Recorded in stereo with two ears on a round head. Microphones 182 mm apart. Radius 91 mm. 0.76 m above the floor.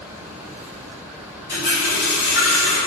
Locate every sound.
1.5 s a running tap: 50° left (ahead or behind), 1.9 m